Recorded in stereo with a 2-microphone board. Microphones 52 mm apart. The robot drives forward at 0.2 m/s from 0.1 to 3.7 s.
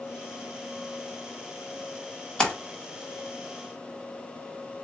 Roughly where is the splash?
Centre.